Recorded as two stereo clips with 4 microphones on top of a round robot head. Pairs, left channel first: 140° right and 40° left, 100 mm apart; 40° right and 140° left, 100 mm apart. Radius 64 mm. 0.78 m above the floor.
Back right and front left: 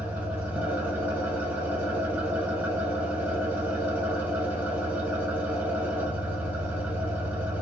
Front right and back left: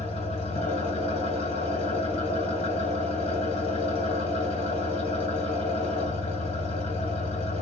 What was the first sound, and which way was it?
An engine running, 30° right.